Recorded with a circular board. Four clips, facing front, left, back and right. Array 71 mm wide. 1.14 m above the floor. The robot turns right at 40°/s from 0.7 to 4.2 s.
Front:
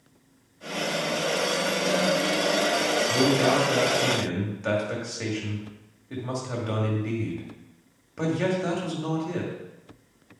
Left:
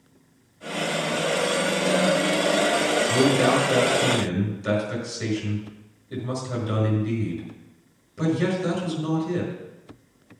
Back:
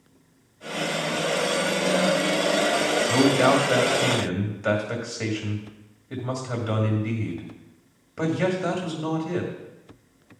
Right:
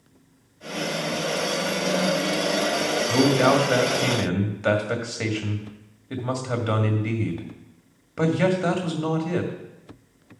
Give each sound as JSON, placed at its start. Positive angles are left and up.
{"t": 3.1, "sound": "a man speaking", "azimuth_deg": -140, "distance_m": 1.9}